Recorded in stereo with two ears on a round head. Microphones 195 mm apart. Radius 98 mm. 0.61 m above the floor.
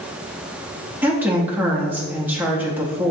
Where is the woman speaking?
10° right (ahead or behind), 0.6 m.